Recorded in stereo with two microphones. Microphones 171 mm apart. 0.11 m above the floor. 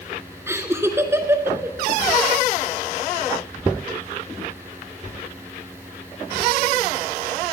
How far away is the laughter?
About 1.1 m.